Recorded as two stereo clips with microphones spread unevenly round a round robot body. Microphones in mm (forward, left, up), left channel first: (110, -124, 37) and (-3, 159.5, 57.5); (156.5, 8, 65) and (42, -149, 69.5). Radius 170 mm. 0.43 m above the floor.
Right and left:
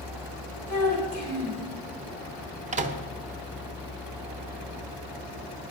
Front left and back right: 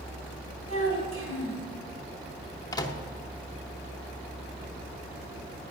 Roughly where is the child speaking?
Behind right.